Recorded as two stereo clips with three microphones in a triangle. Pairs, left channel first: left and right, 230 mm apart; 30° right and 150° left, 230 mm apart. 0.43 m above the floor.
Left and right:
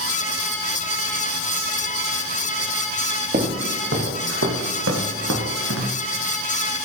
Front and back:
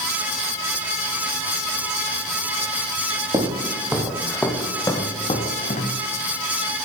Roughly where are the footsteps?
Behind right.